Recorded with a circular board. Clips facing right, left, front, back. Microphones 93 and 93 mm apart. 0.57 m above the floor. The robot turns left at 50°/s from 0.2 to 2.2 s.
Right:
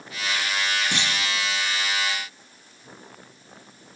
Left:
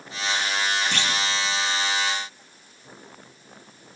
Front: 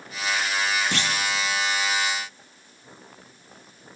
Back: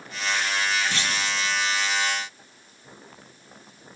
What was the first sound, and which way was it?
A clunk, 15° right.